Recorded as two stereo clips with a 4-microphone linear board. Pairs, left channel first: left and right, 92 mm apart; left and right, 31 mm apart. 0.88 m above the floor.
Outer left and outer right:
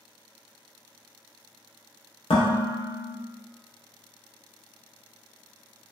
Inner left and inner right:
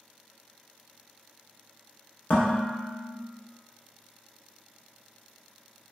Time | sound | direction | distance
2.3 | dishes clattering | 75° left (ahead or behind) | 0.6 m